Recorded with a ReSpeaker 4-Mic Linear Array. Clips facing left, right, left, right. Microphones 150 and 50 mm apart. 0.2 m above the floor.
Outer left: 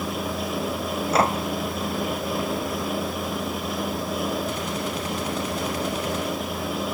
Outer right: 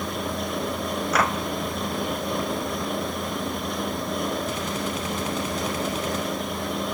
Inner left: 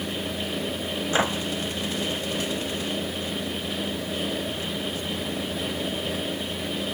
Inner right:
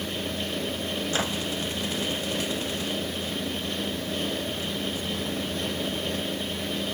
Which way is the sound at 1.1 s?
25° left (ahead or behind).